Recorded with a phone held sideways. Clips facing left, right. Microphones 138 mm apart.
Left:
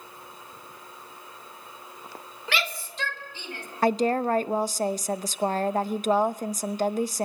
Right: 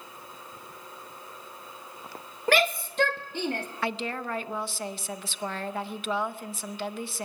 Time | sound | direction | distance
2.5 | a shout | 45° right (ahead or behind) | 1.2 m
3.8 | a woman speaking | 40° left (ahead or behind) | 0.8 m